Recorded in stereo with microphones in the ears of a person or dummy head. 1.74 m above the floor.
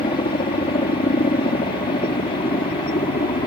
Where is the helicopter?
25° left (ahead or behind).